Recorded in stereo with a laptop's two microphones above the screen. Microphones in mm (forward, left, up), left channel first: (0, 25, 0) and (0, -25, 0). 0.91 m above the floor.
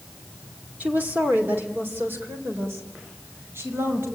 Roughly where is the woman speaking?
Right.